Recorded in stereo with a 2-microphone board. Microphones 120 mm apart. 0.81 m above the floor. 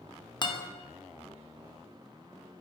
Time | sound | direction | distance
0.4 | a guitar | 40° left (ahead or behind) | 0.8 m